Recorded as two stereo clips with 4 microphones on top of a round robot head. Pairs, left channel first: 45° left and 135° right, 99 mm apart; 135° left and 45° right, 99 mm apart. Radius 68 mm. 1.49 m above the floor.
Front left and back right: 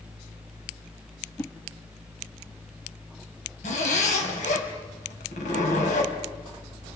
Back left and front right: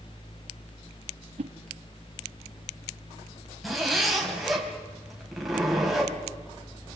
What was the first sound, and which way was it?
A whoosh, 25° right.